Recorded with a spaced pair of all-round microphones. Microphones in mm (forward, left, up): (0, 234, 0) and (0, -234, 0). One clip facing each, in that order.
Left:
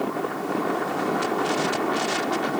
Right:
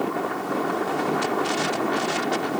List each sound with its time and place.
Only background noise.